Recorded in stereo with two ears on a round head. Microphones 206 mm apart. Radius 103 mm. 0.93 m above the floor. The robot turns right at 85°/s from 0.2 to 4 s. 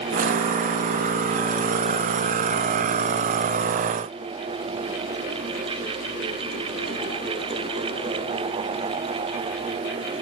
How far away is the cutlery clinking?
I don't hear cutlery clinking.